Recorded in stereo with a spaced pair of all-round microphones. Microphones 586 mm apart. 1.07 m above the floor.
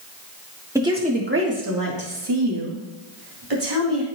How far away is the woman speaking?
About 1.6 m.